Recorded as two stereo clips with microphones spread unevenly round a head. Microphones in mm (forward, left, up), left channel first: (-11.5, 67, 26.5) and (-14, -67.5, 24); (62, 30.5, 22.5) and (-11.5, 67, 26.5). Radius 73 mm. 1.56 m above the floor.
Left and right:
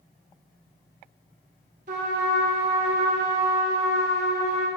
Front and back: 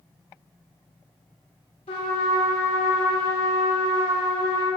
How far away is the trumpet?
About 1.6 m.